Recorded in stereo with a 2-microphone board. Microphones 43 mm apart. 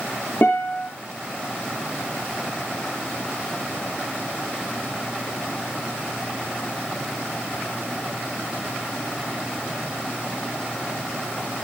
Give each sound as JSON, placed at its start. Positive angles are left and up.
{"t": 0.4, "sound": "a guitar", "side_deg": 60, "distance_m": 9.0}